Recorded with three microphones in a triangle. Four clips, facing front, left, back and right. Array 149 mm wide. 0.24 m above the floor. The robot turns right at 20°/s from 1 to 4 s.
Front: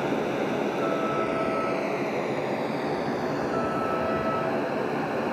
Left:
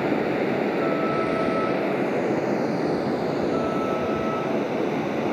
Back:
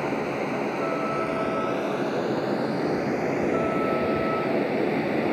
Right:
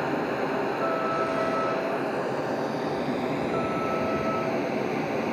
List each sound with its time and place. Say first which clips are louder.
0.0 s running water: left 4 dB, front 1 dB; 80° left, 1.9 m; by 5.3 s 140° left, 1.9 m